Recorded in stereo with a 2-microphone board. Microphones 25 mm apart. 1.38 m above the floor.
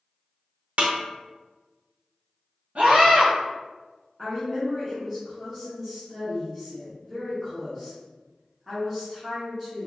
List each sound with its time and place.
0.8 s a snare drum: 60° right (ahead or behind), 0.8 m
2.8 s a scream: 75° right (ahead or behind), 1.6 m
4.2 s a woman speaking: 5° right (ahead or behind), 1.4 m